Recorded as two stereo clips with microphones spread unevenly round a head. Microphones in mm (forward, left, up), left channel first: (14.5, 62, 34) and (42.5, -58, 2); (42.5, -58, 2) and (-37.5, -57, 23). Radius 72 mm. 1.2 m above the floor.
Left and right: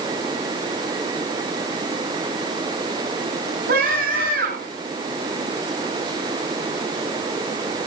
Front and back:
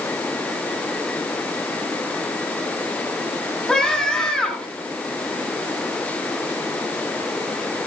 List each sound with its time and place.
3.7 s a scream: 90° right, 8 m